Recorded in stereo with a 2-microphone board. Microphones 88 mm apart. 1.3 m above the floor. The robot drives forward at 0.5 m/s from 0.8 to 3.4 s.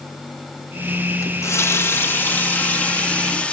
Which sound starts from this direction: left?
A running tap, at 1.2 s.